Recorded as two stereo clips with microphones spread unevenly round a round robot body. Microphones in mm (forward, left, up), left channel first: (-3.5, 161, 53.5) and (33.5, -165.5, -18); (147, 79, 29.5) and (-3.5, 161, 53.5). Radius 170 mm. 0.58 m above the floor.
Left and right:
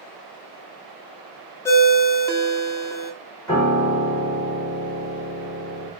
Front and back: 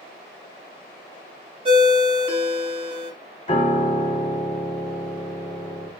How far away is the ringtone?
About 0.7 m.